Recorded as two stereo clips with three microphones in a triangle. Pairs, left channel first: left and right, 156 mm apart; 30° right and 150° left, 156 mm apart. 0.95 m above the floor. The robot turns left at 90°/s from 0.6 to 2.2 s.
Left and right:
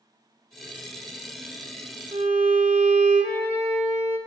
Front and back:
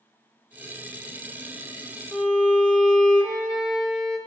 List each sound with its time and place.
2.1 s a violin: 120° right, 1.0 m; by 4.2 s 125° right, 1.0 m